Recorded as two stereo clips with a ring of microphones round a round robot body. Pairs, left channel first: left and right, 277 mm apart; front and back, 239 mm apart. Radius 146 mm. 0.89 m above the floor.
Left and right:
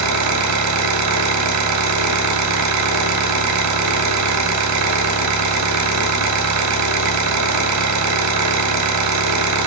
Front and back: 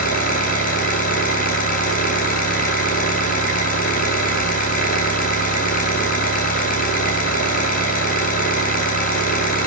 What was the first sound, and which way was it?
An engine running, 60° right.